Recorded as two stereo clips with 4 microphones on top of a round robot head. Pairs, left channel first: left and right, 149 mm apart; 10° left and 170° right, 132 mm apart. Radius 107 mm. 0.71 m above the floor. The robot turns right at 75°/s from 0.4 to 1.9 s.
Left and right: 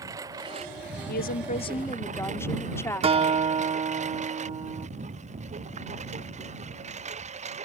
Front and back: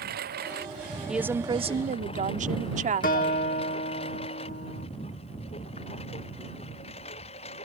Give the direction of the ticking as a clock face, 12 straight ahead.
No ticking in this recording.